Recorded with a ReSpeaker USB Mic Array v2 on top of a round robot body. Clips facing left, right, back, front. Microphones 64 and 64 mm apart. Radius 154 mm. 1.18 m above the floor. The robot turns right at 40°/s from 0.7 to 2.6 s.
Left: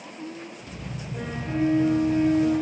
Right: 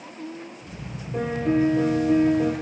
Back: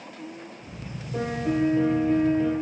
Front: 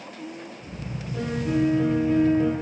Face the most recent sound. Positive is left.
turn(degrees=-85)